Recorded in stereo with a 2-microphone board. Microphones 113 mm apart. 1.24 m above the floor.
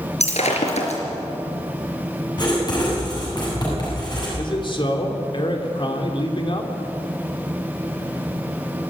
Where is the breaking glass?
80° left, 4.5 m.